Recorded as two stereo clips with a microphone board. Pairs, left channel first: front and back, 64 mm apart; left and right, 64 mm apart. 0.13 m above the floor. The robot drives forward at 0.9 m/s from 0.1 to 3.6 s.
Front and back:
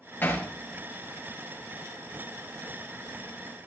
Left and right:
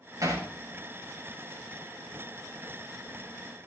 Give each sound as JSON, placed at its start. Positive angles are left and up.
{"t": 0.2, "sound": "hammering", "azimuth_deg": -60, "distance_m": 5.0}